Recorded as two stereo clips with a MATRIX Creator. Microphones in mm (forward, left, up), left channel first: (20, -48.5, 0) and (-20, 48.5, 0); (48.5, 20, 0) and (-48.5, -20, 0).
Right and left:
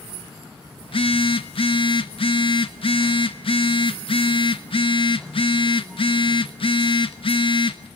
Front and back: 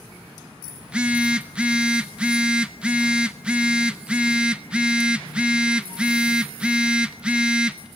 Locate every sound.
0.8 s a phone buzzing: 75° right, 1.2 m